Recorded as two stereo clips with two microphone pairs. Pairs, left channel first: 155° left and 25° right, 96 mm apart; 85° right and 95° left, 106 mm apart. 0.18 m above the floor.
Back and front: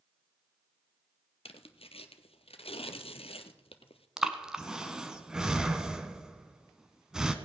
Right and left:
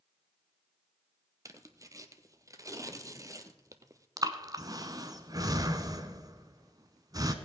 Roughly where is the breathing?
Ahead left.